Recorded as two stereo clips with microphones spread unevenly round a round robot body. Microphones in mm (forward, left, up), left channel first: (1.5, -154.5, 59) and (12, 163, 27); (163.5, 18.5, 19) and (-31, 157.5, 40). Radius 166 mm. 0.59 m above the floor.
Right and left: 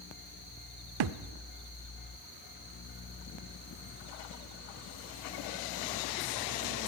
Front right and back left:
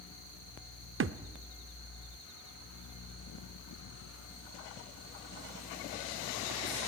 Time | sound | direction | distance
1.0 | a thud | 105° left | 0.8 m